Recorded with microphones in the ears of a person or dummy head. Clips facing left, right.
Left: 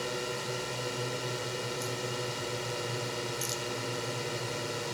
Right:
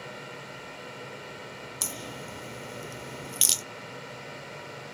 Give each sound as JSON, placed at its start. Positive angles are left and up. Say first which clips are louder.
{"t": 0.0, "sound": "a drone", "louder": "left 7 dB", "side_deg": 60}
{"t": 1.8, "sound": "a crack", "louder": "left 5 dB", "side_deg": -85}